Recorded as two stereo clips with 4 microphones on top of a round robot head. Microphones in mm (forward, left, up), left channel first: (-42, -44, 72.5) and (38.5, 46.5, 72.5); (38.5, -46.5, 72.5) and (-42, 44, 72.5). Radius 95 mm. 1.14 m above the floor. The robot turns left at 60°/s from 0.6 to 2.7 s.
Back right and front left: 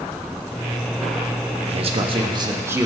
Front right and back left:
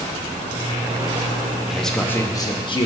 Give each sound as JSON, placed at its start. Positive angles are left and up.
{"t": 1.7, "sound": "a man speaking", "azimuth_deg": 50, "distance_m": 1.1}